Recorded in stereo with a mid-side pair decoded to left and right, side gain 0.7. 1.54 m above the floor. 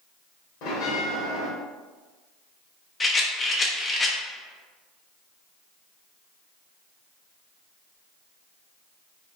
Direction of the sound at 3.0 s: 20° left.